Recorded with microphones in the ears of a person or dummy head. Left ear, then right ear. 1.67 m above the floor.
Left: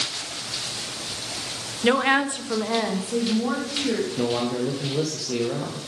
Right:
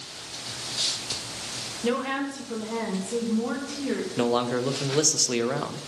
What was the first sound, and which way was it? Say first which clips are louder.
A woman speaking: left 8 dB; 35° left (ahead or behind).